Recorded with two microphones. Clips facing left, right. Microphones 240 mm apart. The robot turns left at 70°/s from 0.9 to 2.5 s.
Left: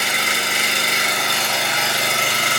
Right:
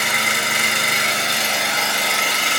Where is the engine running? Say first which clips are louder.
Even; 130° right, 3 m; by 2.6 s 115° left, 3 m.